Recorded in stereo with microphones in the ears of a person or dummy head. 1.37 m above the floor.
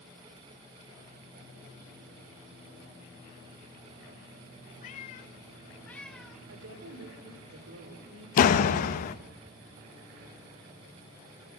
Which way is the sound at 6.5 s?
75° right (ahead or behind).